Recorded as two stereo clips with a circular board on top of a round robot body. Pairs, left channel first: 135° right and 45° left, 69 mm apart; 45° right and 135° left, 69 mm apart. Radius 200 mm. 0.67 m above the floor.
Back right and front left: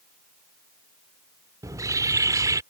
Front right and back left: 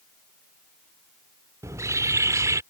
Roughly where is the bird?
Left.